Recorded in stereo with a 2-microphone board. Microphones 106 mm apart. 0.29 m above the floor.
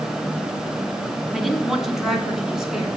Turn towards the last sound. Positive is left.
turn(degrees=-5)  # may be behind; listen again after turning